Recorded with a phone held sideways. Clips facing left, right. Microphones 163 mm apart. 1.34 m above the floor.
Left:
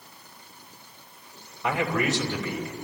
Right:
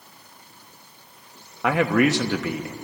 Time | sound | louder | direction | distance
1.6 | a man speaking | right 7 dB | 75° right (ahead or behind) | 1.6 m